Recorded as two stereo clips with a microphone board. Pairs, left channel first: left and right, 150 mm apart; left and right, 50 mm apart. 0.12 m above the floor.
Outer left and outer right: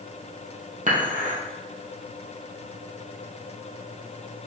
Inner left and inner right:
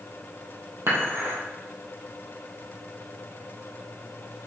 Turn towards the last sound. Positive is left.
turn(degrees=-60)  # may be behind; listen again after turning